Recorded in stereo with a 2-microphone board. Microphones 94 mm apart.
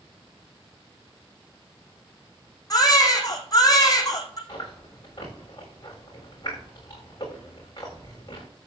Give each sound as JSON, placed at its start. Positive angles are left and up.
{"t": 2.7, "sound": "a baby crying", "side_deg": 40, "distance_m": 2.5}
{"t": 4.5, "sound": "chewing", "side_deg": 45, "distance_m": 9.0}